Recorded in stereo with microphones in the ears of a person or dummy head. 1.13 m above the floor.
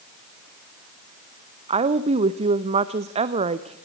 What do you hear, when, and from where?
1.7 s a woman speaking: 40° right (ahead or behind), 0.7 m